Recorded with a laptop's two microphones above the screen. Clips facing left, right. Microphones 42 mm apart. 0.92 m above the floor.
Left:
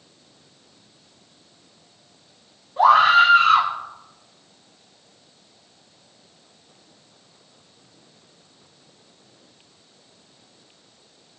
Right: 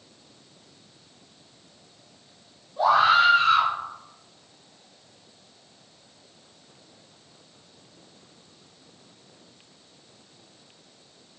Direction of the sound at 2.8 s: 70° left (ahead or behind).